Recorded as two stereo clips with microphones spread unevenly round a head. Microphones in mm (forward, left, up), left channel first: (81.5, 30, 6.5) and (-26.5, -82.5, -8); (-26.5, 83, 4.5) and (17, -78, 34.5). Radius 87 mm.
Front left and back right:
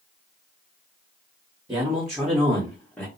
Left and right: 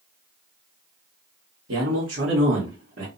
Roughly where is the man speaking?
Ahead right.